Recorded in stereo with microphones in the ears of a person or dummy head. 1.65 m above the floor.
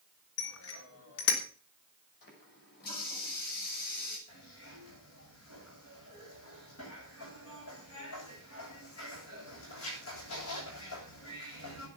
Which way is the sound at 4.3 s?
80° left.